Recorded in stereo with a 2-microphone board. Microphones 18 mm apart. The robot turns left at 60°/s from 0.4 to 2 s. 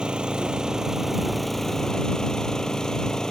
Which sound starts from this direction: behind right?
An engine running, at 0.0 s.